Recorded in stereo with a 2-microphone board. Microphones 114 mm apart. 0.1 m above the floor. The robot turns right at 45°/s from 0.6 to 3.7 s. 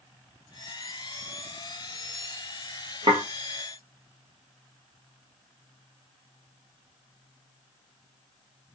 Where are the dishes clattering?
45° right (ahead or behind), 1.3 m; by 3.2 s 50° right (ahead or behind), 1.3 m.